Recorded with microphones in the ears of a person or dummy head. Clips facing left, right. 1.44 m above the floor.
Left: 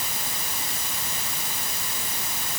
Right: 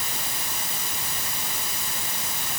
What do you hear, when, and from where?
Only background noise.